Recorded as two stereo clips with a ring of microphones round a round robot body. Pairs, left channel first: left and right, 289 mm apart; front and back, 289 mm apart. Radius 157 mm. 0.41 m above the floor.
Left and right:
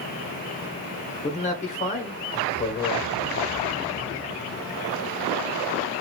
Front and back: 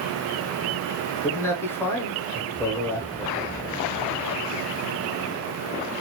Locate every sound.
1.2 s a man speaking: 70° left, 0.8 m